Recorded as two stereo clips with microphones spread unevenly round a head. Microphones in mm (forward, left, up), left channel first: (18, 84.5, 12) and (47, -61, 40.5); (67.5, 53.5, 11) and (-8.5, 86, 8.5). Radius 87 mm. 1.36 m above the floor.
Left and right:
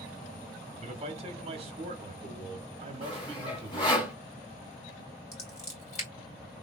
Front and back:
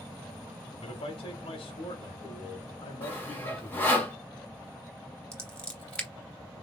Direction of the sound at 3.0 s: 45° left.